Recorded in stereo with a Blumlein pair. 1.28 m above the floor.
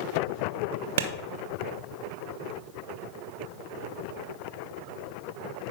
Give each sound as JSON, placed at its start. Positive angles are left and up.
{"t": 1.0, "sound": "a clap", "azimuth_deg": -60, "distance_m": 0.9}